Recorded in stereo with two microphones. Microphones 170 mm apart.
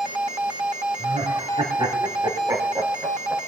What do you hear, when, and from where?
1.0 s laughter: 35° right (ahead or behind), 3.5 m; by 3.4 s 10° right (ahead or behind), 2.5 m